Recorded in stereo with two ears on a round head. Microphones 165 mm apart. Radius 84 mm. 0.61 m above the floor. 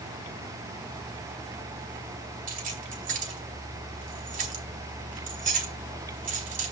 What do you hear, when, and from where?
2.5 s keys jangling: 45° right (ahead or behind), 2.5 m